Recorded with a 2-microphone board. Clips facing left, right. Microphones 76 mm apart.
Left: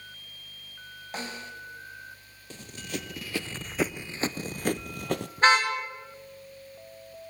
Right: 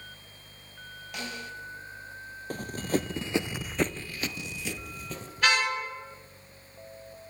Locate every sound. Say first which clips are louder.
1.1 s a snare drum: left 1 dB; 35° left (ahead or behind), 3.5 m
2.5 s running footsteps: right 8 dB; 45° right (ahead or behind), 1.1 m; by 5.3 s 65° left (ahead or behind), 1.1 m
5.4 s a car horn: left 4 dB; 35° left (ahead or behind), 4 m